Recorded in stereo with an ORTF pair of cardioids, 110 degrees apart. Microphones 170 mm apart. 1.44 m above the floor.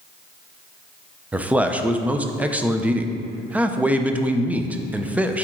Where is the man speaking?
10° right, 0.7 m.